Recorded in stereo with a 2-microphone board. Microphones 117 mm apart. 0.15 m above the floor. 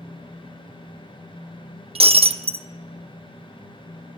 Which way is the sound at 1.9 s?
60° right (ahead or behind).